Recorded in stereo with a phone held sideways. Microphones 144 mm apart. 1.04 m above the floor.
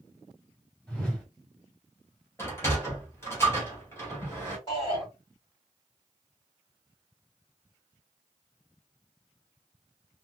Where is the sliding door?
20° left (ahead or behind), 1.9 m.